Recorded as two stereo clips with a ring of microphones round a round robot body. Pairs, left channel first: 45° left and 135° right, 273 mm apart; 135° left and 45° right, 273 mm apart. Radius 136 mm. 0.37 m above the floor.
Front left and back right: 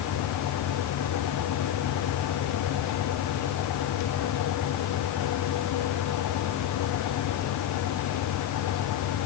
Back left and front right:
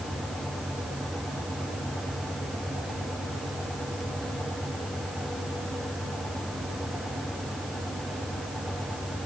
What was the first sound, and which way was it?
Only background noise.